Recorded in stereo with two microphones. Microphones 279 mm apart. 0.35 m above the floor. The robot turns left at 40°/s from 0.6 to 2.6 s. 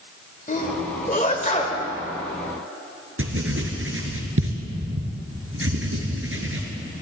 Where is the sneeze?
30° left (ahead or behind), 1.6 m; by 1.8 s 25° left (ahead or behind), 1.6 m.